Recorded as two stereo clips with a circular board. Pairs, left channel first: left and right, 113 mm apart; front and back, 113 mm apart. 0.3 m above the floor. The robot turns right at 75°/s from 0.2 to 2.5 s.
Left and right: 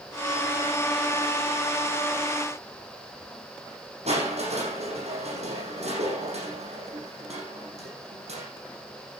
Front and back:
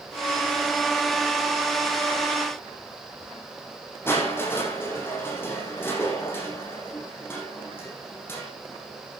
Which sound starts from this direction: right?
Crushing, at 4.1 s.